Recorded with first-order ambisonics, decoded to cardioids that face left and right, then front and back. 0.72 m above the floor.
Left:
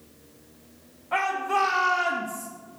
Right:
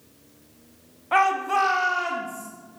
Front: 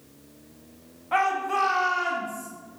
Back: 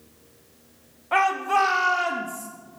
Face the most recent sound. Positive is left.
turn(degrees=135)